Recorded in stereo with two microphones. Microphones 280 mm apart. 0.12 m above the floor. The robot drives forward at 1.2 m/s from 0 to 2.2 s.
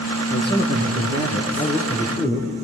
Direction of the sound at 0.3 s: 40° left (ahead or behind).